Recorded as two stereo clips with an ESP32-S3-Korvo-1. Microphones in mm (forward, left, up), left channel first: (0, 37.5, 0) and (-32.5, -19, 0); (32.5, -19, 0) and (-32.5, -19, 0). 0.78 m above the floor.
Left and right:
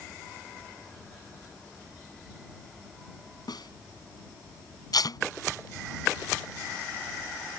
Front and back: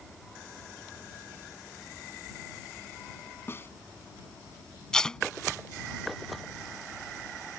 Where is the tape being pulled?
80° left.